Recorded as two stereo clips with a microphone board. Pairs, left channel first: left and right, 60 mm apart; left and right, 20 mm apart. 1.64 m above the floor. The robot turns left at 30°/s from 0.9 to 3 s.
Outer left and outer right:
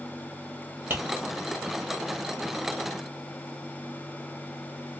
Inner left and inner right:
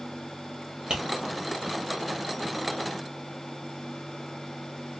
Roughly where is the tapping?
Right.